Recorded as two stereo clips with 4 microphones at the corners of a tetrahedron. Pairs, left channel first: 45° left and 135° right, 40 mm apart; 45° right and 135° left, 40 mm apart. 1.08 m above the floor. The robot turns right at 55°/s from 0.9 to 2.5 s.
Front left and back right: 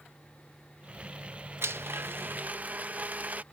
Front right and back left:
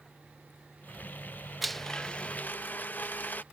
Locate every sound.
1.6 s a blender: 135° right; by 3.4 s 85° right